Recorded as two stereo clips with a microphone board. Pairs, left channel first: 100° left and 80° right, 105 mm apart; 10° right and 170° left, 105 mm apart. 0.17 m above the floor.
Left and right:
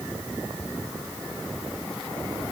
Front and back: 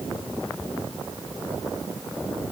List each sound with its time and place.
Only background noise.